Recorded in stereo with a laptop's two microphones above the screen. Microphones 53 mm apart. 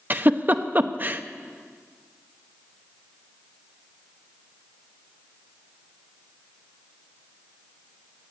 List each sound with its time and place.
0.1 s a giggle: 35° right (ahead or behind), 0.8 m